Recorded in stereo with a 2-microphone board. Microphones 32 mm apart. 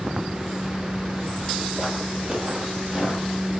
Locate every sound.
1.8 s footsteps: 15° right (ahead or behind), 1.7 m; by 3.5 s 30° right (ahead or behind), 2 m